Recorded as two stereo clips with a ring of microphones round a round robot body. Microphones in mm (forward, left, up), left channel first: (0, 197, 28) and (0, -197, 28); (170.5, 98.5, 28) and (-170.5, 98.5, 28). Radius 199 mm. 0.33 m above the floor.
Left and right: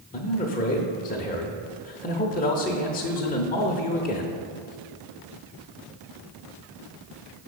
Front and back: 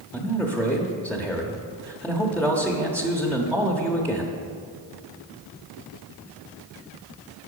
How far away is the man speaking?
About 0.9 m.